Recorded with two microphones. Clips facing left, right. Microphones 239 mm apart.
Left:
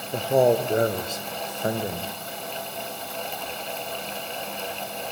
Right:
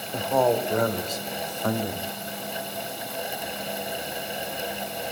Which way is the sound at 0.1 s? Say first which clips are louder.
Left 3 dB; 30° left (ahead or behind).